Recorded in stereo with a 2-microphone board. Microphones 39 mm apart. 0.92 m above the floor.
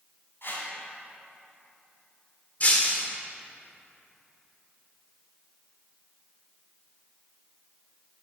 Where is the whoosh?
65° left (ahead or behind), 3 m.